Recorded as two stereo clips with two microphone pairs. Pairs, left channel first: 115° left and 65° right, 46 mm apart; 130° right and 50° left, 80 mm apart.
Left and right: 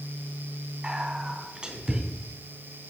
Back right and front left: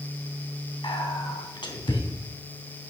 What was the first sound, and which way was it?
Whispering, 130° right.